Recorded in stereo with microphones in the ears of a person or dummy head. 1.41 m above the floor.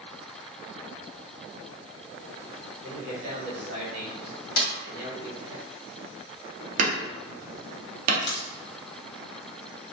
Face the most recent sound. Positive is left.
turn(degrees=30)  # may be behind; listen again after turning